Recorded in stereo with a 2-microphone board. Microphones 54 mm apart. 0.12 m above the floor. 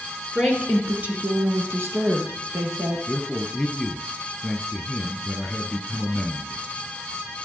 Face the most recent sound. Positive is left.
turn(degrees=0)  # may be behind; listen again after turning